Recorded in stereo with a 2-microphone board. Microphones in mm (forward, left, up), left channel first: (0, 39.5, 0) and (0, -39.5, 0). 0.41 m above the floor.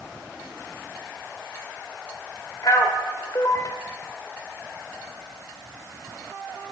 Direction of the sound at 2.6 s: 45° left (ahead or behind).